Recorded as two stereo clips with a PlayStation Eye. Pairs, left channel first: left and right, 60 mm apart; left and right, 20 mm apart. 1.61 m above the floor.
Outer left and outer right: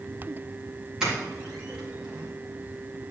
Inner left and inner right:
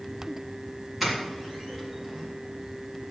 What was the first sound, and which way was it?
A doorbell, 10° right (ahead or behind).